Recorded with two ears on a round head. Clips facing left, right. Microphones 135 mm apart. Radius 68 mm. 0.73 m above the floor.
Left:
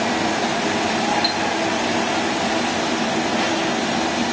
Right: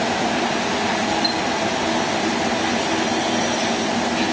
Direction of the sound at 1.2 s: 40° left (ahead or behind).